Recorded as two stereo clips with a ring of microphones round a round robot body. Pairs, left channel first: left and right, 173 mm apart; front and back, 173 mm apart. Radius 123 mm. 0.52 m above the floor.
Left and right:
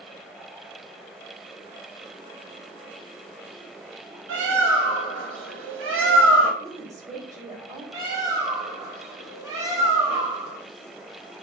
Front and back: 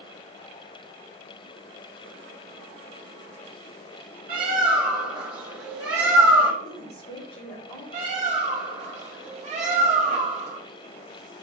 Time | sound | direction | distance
4.3 | a bird | 125° right | 1.1 m
6.6 | a woman speaking | 20° right | 2 m
7.9 | a bird | 155° right | 1.0 m